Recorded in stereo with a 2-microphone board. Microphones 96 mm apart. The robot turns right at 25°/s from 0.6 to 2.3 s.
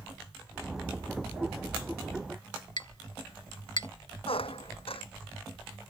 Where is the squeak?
75° left (ahead or behind).